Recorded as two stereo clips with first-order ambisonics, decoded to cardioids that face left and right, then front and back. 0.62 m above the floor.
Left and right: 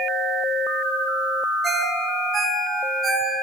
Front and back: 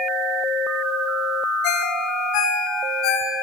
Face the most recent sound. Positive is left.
turn(degrees=-15)